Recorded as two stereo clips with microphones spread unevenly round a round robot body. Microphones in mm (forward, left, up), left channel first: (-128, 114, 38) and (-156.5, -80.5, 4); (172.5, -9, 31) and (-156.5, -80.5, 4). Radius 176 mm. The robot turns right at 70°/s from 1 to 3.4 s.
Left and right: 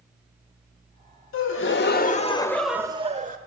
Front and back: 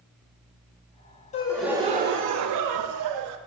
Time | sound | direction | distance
1.3 | a gasp | 85° left | 0.6 m